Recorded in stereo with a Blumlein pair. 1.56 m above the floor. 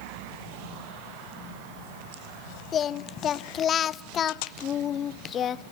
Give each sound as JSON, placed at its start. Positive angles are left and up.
{"t": 2.7, "sound": "singing", "azimuth_deg": 25, "distance_m": 0.5}